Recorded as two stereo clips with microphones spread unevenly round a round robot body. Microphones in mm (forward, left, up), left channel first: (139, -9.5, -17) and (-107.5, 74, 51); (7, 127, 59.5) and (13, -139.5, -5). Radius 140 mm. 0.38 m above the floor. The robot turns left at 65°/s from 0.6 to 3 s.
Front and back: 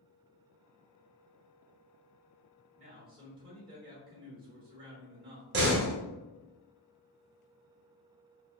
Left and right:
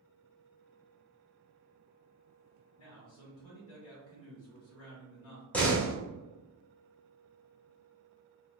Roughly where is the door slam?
Behind.